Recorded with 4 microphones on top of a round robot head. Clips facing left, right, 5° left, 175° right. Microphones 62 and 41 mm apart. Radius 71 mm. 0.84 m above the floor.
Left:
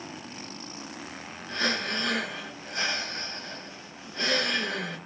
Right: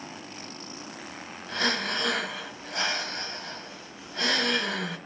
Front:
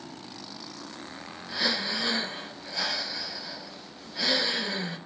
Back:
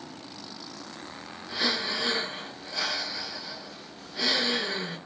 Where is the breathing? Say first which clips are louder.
Right 1 dB, even; 85° right, 1.6 m.